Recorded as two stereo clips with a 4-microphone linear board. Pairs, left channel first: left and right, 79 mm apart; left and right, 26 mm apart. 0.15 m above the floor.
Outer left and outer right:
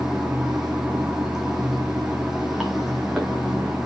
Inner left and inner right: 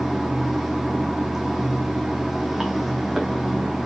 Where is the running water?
5° right (ahead or behind), 2 m.